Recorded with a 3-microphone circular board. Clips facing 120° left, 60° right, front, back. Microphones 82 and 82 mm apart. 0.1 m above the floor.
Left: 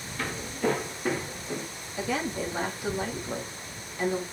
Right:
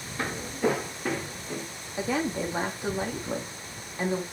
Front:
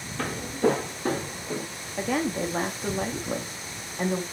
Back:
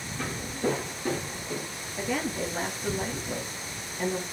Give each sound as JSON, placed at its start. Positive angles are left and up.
{"t": 0.2, "sound": "footsteps", "azimuth_deg": 5, "distance_m": 2.5}
{"t": 2.0, "sound": "a woman speaking", "azimuth_deg": 0, "distance_m": 5.5}